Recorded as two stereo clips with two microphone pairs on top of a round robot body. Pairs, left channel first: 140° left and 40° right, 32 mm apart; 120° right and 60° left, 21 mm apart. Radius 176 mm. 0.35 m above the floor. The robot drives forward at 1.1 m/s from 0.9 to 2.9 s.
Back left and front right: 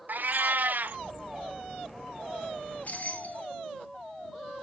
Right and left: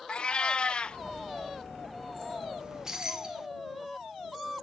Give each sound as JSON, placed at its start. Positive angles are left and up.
{"t": 0.1, "sound": "a cat meowing", "azimuth_deg": -80, "distance_m": 0.5}
{"t": 2.6, "sound": "keys jangling", "azimuth_deg": 95, "distance_m": 1.2}